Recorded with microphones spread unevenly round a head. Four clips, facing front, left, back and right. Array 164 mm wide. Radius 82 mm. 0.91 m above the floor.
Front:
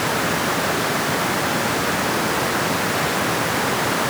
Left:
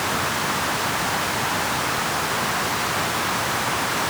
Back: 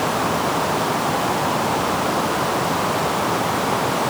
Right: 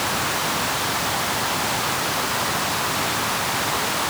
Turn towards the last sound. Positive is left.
No sound to turn to.